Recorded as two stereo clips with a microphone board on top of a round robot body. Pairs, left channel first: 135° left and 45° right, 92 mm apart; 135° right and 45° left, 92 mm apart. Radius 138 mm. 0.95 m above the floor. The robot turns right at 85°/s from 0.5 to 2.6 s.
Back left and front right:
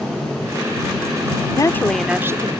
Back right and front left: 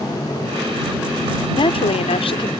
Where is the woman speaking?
175° right; by 2.5 s 95° right.